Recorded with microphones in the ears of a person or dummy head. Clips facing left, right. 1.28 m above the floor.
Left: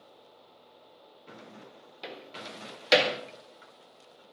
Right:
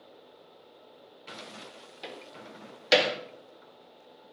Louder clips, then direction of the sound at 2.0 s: Left 1 dB; centre (ahead or behind).